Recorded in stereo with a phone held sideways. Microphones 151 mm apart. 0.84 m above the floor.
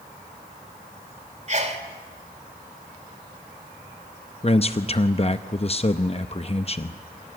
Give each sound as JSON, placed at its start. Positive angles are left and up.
{"t": 1.5, "sound": "a sneeze", "side_deg": -45, "distance_m": 2.5}
{"t": 4.4, "sound": "a man speaking", "side_deg": 40, "distance_m": 0.6}